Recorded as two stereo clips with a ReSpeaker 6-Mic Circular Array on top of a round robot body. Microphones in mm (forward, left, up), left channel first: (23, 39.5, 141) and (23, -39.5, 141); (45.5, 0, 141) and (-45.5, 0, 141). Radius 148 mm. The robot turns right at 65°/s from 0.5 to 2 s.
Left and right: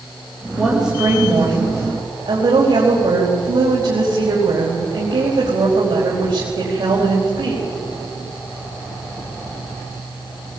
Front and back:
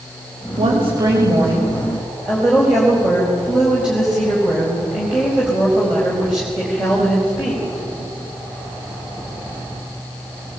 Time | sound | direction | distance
0.6 | a woman speaking | 165° left | 4.5 m